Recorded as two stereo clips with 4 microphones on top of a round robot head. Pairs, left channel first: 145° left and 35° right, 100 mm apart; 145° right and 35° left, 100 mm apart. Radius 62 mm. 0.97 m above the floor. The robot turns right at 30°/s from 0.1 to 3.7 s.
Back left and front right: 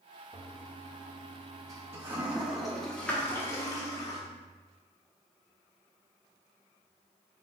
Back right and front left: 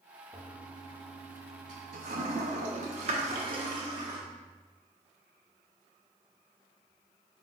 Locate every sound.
0.3 s a toilet flushing: 15° right, 0.7 m; by 4.2 s 85° left, 0.7 m